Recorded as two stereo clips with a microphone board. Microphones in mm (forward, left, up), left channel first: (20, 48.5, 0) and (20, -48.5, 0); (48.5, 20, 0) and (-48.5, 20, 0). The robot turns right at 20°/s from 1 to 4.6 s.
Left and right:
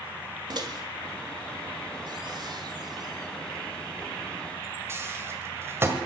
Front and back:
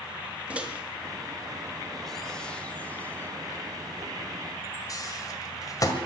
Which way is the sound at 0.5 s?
105° right.